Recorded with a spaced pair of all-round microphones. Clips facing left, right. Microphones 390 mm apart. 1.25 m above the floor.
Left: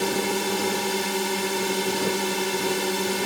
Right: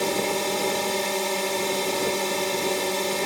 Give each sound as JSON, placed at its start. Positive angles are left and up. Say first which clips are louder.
{"t": 0.0, "sound": "a drone", "louder": "left 1 dB", "side_deg": 25}